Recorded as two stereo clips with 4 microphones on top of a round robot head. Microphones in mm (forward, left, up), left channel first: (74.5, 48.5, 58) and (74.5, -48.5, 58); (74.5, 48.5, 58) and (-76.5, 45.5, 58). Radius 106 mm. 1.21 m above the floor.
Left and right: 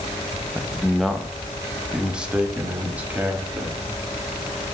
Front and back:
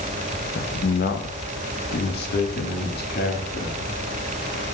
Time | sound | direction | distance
0.6 | a man speaking | 10° left | 1.3 m